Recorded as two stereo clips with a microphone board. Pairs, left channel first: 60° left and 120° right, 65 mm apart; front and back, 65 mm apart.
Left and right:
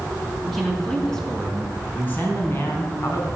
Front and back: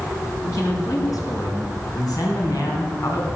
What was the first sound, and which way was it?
A man speaking, 30° right.